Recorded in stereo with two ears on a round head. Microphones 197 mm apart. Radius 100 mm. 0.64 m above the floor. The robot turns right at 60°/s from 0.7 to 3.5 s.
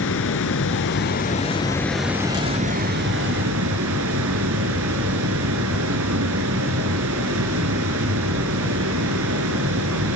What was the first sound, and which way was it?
Running water, 105° left.